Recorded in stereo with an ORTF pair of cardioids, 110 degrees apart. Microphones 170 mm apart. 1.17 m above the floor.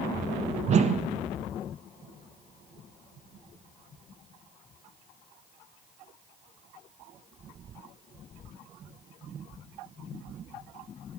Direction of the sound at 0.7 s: 40° right.